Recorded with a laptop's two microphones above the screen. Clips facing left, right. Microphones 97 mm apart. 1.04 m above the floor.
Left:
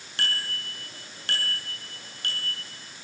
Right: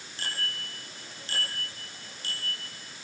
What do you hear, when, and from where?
0.2 s a bicycle bell: 70° left (ahead or behind), 9 m; by 2.6 s 60° left (ahead or behind), 9.5 m